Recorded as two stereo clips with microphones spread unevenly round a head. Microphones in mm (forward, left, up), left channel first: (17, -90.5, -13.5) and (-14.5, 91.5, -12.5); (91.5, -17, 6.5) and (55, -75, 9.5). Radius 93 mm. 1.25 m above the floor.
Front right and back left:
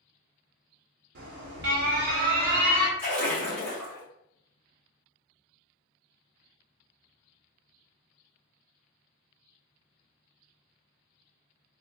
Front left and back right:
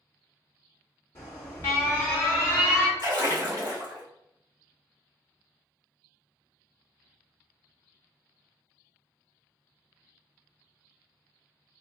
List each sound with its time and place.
1.1 s an alarm: 110° left, 0.8 m
3.0 s a splash: 165° right, 1.9 m